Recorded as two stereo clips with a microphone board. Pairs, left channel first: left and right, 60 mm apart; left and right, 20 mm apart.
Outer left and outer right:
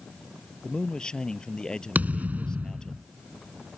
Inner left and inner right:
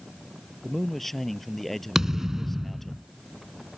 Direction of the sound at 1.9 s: 30° right (ahead or behind).